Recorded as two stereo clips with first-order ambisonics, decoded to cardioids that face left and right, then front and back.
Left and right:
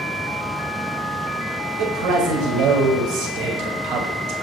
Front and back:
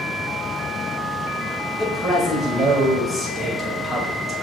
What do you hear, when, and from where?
1.8 s a man speaking: 95° right, 1.8 m